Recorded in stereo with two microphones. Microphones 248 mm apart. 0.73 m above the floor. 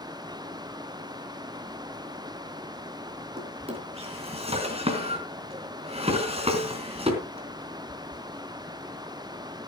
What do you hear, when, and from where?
3.4 s a drawer: 20° right (ahead or behind), 4 m